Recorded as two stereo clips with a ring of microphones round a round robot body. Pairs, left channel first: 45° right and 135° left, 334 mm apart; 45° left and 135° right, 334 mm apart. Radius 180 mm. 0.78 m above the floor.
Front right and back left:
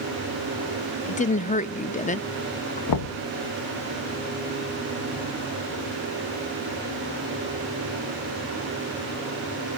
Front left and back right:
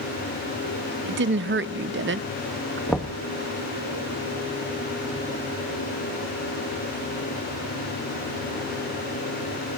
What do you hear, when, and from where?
1.1 s a woman speaking: 100° right, 0.7 m
2.9 s knocking: 45° right, 0.8 m